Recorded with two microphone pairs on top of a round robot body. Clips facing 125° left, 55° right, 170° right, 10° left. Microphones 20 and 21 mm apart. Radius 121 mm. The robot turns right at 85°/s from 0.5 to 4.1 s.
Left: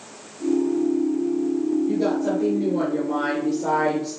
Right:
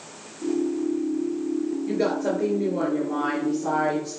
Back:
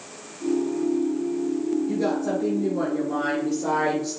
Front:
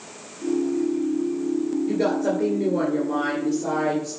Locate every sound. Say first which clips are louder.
1.9 s a woman speaking: left 2 dB, front 2 dB; 30° right, 3.5 m; by 4.2 s 160° left, 3.5 m